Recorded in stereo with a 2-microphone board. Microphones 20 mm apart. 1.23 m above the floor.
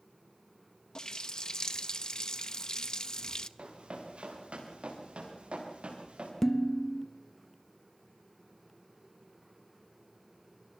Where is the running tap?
40° left (ahead or behind), 0.8 m.